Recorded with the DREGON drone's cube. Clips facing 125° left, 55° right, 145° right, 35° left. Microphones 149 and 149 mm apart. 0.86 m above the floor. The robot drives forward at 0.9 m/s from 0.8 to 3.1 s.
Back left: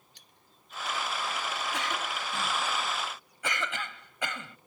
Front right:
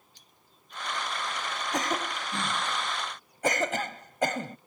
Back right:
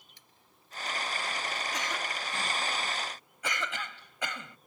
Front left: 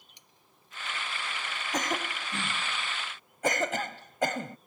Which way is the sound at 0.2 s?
105° left.